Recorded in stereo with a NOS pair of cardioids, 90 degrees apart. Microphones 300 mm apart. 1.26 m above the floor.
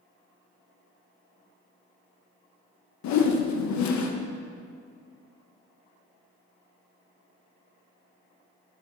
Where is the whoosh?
70° left, 0.8 m.